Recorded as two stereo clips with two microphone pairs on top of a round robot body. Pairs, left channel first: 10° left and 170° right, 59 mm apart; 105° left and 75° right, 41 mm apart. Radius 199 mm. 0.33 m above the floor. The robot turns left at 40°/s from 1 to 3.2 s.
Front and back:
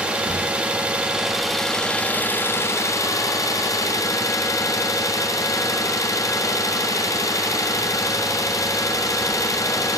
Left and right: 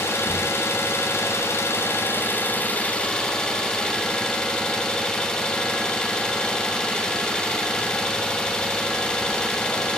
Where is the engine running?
120° left, 1.0 m; by 10.0 s 35° left, 1.0 m.